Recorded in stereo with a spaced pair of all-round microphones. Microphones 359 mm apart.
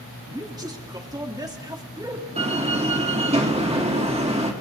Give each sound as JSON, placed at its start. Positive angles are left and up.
{"t": 0.3, "sound": "a man speaking", "side_deg": -10, "distance_m": 3.0}
{"t": 2.4, "sound": "a door slam", "side_deg": -15, "distance_m": 3.0}